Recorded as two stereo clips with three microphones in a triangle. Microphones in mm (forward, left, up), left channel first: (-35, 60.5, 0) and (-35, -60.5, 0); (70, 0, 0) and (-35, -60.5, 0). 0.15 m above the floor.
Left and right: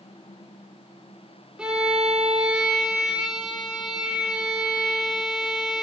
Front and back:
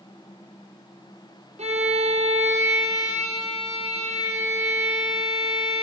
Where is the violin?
170° right, 3.5 m.